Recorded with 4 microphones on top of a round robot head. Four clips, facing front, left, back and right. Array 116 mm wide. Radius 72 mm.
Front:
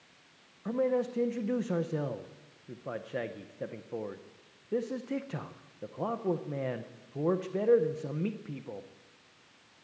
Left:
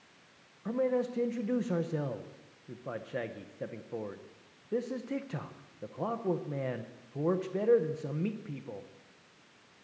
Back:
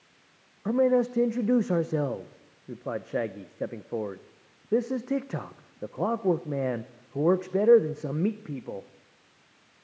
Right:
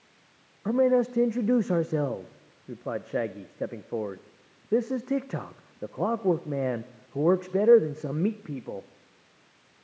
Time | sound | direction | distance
0.7 | a man speaking | 130° right | 0.8 m